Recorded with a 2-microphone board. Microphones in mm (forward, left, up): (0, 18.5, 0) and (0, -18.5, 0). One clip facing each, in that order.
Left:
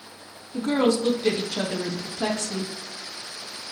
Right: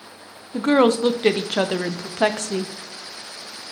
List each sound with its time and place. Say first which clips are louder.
0.5 s a woman speaking: right 5 dB; 50° right (ahead or behind), 0.5 m